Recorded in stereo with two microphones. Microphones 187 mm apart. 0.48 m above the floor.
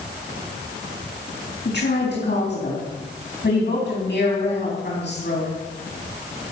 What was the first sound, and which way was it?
A woman speaking, 65° left (ahead or behind).